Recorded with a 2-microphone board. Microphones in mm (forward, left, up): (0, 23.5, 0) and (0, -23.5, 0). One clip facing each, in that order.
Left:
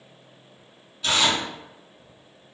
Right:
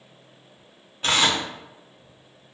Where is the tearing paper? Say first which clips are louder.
Right 1 dB; 40° right (ahead or behind), 0.6 m.